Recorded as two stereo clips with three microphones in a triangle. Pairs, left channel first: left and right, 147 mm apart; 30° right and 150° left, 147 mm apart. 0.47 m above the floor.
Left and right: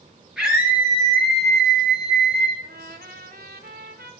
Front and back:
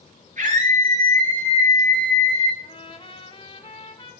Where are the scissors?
I don't hear scissors.